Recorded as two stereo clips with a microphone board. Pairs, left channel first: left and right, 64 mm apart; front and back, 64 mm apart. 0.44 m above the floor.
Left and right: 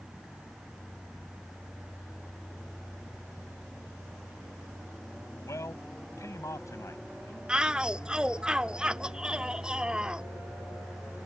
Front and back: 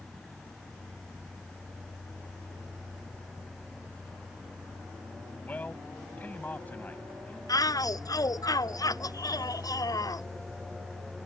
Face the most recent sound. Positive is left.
turn(degrees=-15)